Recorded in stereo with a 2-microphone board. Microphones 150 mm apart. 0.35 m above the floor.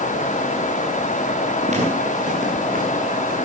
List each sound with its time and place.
1.7 s footsteps: 50° right (ahead or behind), 3.5 m; by 3.4 s 70° right (ahead or behind), 3.5 m